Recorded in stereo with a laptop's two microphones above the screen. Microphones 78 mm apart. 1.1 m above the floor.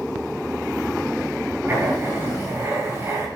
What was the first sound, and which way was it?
Writing, 30° right (ahead or behind).